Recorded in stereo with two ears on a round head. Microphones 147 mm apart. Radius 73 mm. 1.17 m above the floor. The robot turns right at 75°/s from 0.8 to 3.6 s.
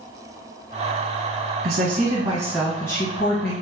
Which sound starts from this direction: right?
A woman speaking, at 1.6 s.